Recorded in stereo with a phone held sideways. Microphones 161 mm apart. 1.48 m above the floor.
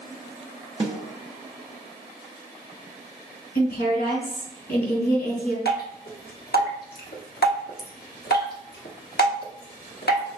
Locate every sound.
0.8 s a snare drum: 35° right (ahead or behind), 0.9 m
3.5 s a woman speaking: 75° left (ahead or behind), 2 m
5.7 s dripping: 70° left (ahead or behind), 0.9 m